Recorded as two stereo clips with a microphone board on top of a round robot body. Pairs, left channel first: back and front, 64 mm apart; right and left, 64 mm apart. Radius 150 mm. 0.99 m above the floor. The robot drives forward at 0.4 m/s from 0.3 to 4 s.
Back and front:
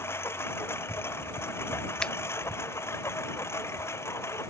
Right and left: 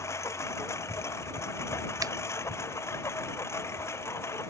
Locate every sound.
0.0 s a lawn mower: 130° right; by 4.5 s 135° right
2.0 s a finger snap: 105° left; by 2.1 s 110° left